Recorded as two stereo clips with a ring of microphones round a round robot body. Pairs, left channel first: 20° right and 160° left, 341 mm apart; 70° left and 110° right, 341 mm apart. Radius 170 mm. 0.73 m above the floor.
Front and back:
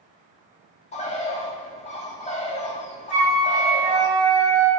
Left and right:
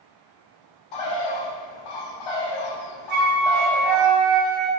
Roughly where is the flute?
Behind right.